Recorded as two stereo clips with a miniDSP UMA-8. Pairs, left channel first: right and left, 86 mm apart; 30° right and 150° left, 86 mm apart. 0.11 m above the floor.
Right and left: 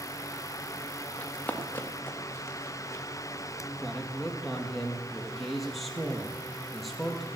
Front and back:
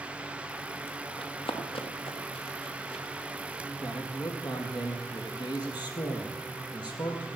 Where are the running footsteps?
15° right, 3 m; by 3.0 s 35° right, 4 m.